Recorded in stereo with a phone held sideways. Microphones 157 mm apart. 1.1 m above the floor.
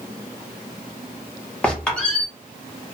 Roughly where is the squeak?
Centre.